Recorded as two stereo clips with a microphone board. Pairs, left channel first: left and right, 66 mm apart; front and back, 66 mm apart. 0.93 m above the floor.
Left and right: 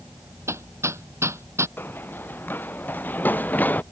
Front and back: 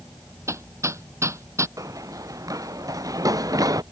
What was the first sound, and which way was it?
Hammering, 135° right.